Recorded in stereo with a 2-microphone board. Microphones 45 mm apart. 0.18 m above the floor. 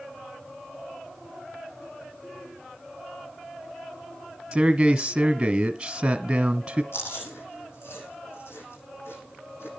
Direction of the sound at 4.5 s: 20° right (ahead or behind).